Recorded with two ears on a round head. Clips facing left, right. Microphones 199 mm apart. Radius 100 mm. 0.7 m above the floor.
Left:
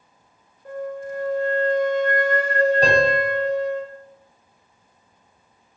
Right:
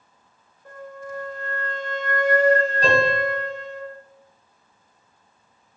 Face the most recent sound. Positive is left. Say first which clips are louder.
# left 2 dB
turn(degrees=55)  # may be behind; listen again after turning